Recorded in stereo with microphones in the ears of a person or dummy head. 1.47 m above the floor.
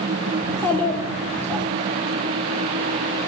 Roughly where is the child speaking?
Centre.